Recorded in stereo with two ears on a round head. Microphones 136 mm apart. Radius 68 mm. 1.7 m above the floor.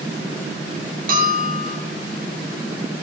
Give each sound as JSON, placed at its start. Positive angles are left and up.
{"t": 1.1, "sound": "a bell", "side_deg": -55, "distance_m": 3.0}